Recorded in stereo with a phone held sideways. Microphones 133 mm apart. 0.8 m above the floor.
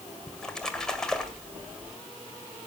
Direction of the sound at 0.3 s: 5° left (ahead or behind).